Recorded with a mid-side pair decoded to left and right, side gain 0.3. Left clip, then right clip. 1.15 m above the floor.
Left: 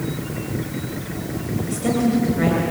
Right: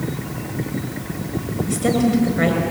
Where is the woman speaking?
70° right, 6 m.